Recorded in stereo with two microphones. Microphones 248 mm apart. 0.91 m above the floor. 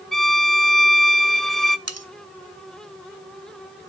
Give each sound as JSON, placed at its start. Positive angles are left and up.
{"t": 0.1, "sound": "a violin", "side_deg": 0, "distance_m": 0.7}
{"t": 1.9, "sound": "cutlery clinking", "side_deg": -80, "distance_m": 1.1}